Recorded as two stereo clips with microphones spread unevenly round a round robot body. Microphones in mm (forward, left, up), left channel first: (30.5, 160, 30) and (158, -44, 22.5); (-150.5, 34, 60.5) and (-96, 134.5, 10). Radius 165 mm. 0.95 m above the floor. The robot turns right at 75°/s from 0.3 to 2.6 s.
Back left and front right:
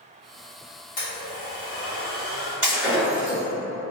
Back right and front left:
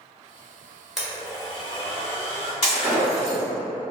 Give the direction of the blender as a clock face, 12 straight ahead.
7 o'clock.